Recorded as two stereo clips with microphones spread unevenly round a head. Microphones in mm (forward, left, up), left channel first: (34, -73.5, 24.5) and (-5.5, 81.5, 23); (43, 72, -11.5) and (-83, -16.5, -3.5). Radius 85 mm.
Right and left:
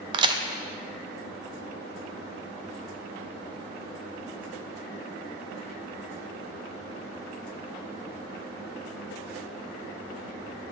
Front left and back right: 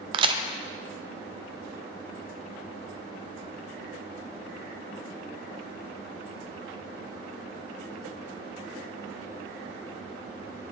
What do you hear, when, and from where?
0.1 s a crack: 160° left, 0.6 m